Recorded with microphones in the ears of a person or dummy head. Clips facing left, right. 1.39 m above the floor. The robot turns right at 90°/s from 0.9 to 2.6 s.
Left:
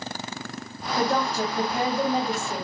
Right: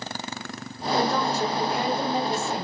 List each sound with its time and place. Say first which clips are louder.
1.0 s a woman speaking: even; 15° left, 6.5 m; by 2.6 s 165° left, 6.5 m